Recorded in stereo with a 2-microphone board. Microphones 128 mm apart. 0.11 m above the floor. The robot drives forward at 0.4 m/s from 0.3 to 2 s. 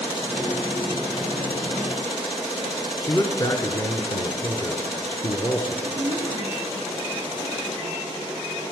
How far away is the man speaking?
About 1.2 m.